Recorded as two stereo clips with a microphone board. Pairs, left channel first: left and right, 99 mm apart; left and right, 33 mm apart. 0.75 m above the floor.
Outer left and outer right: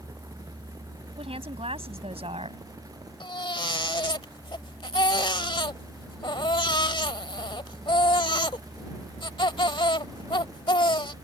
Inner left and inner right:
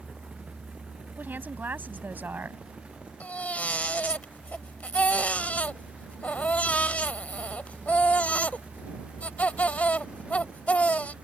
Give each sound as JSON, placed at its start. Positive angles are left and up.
{"t": 1.2, "sound": "a woman speaking", "side_deg": -80}
{"t": 3.2, "sound": "a baby crying", "side_deg": 55}